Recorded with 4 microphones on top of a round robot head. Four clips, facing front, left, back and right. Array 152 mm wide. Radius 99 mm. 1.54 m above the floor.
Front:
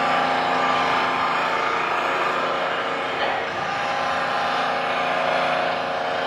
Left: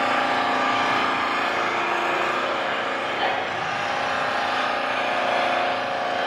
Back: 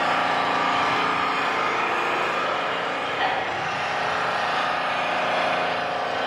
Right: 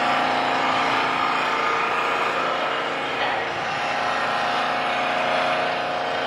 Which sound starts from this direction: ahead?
An engine running, at 0.0 s.